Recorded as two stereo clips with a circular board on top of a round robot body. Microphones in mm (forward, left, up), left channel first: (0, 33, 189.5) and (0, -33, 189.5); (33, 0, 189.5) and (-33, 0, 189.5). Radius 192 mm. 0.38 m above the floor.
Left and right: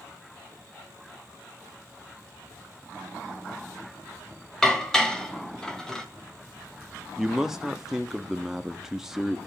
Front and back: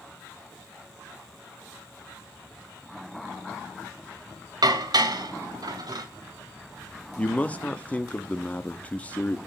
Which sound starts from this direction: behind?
Dishes clattering, at 4.6 s.